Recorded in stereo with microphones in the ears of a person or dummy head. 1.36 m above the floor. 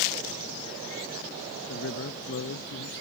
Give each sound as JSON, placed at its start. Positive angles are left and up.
{"t": 1.7, "sound": "a man speaking", "side_deg": 60}